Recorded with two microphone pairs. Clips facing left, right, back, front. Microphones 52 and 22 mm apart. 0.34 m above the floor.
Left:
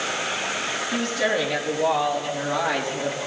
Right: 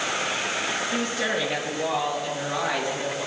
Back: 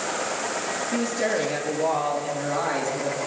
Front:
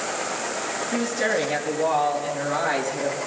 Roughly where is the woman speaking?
Ahead.